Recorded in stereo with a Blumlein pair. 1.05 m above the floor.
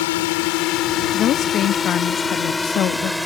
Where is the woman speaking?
30° left.